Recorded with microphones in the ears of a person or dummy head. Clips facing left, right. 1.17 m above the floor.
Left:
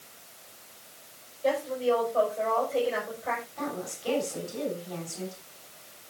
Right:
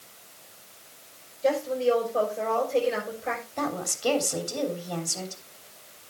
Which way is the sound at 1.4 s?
30° right (ahead or behind).